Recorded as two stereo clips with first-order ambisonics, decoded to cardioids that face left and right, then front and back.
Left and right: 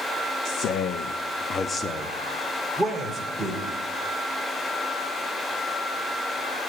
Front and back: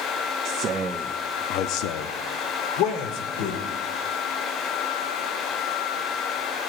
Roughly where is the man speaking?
Behind left.